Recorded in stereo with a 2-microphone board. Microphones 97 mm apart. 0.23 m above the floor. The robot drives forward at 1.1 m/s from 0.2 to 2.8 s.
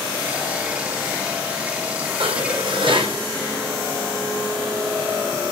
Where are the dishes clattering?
65° right (ahead or behind), 9 m; by 3.2 s 60° right (ahead or behind), 9 m.